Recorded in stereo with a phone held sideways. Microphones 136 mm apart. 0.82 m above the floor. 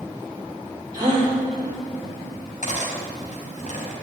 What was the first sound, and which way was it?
A gasp, 30° right (ahead or behind).